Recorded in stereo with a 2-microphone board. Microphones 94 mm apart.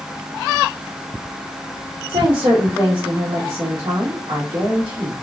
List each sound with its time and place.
2.1 s a woman speaking: 45° right (ahead or behind), 1.3 m